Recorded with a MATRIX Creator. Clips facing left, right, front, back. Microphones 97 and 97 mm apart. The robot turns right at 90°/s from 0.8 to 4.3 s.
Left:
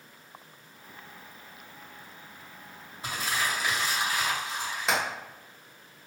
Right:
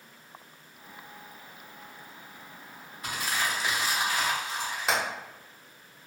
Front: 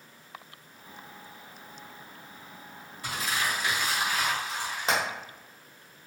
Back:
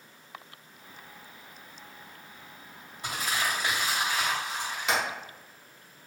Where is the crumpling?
130° left, 1.9 m; by 5.0 s 115° right, 1.9 m.